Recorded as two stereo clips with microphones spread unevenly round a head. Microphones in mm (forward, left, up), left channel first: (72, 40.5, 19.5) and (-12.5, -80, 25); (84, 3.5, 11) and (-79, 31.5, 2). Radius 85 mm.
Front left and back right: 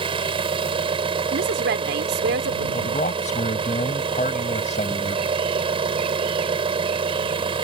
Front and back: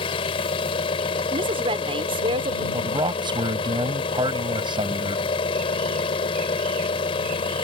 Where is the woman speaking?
125° right.